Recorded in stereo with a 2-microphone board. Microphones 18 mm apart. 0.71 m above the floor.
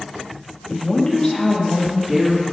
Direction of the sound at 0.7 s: 35° left (ahead or behind).